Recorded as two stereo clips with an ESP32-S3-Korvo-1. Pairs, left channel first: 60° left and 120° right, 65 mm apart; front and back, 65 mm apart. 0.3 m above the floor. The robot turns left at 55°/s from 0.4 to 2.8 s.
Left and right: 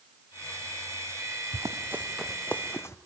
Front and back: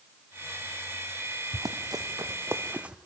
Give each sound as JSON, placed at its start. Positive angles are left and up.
{"t": 1.5, "sound": "running footsteps", "azimuth_deg": -150, "distance_m": 1.3}